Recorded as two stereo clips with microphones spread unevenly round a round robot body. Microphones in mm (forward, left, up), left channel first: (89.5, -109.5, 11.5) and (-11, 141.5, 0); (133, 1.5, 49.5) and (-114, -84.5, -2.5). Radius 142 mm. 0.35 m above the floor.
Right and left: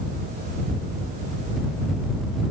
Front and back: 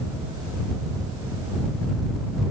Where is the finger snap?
I don't hear a finger snap.